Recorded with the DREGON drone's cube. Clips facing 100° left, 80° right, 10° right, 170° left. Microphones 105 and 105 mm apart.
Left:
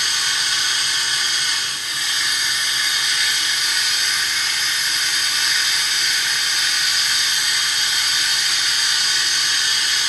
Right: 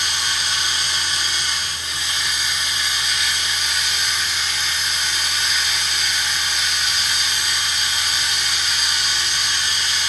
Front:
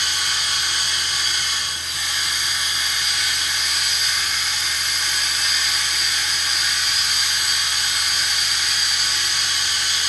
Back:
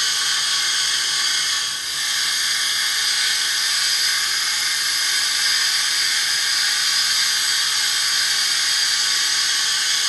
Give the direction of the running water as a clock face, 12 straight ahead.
1 o'clock.